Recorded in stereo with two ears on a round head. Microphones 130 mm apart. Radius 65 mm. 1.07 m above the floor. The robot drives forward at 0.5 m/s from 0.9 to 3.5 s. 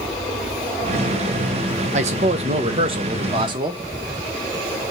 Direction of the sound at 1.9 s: 50° right (ahead or behind).